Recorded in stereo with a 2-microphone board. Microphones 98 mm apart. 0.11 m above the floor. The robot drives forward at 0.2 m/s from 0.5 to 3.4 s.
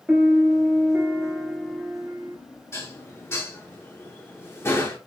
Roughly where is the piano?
Centre.